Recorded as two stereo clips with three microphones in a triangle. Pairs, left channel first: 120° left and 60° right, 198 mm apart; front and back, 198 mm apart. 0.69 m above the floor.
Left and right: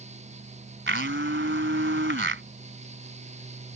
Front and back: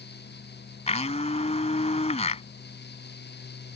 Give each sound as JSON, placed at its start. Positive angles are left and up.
{"t": 0.9, "sound": "a blender", "azimuth_deg": -55}